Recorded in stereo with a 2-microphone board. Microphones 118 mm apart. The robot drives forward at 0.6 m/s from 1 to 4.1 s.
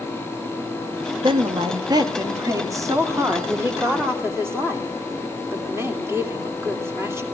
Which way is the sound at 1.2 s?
45° right (ahead or behind).